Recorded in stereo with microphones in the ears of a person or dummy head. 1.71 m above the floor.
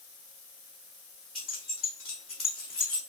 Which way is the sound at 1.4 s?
Centre (ahead or behind).